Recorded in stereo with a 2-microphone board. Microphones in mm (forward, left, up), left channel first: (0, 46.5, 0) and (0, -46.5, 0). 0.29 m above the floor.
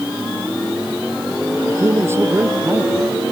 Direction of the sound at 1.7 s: 30° right (ahead or behind).